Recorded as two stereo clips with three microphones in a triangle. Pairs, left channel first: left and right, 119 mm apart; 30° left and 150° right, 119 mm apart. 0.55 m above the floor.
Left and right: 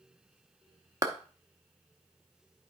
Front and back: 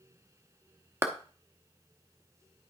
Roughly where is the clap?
Right.